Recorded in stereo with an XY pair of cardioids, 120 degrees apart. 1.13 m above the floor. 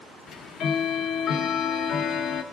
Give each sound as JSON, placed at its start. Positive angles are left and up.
{"t": 0.3, "sound": "ticking", "azimuth_deg": 65, "distance_m": 0.9}